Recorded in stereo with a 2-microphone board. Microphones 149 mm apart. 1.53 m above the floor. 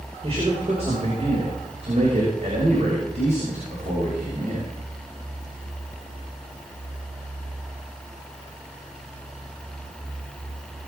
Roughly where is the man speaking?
Right.